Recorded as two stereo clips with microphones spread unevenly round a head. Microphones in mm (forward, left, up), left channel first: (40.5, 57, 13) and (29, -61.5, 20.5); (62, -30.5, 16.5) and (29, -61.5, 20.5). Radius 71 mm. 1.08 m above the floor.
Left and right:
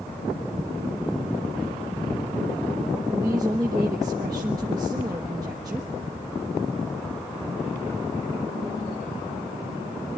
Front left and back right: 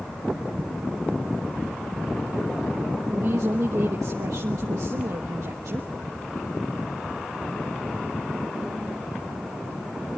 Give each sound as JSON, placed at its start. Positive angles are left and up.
{"t": 3.1, "sound": "a woman speaking", "azimuth_deg": -160, "distance_m": 1.1}